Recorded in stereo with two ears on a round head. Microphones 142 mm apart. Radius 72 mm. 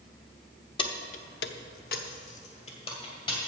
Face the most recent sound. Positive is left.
turn(degrees=30)  # may be behind; listen again after turning